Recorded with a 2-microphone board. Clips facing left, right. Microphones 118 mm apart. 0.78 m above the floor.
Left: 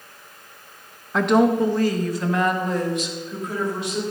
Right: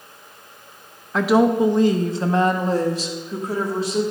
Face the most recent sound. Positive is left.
turn(degrees=-35)  # may be behind; listen again after turning